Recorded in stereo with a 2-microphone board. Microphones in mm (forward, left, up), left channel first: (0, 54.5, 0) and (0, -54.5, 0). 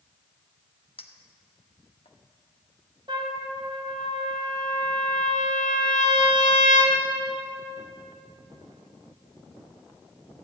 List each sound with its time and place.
1.0 s a clink: 60° left (ahead or behind), 0.8 m
3.1 s a trumpet: 50° right (ahead or behind), 1.9 m